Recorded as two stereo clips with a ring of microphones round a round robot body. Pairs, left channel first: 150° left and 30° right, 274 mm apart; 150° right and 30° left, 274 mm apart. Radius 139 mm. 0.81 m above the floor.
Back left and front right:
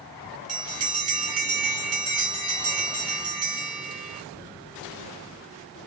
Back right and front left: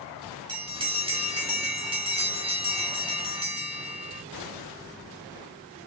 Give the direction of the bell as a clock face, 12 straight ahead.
1 o'clock.